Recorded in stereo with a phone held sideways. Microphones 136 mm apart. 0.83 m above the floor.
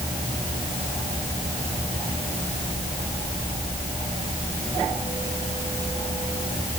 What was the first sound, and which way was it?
Only background noise.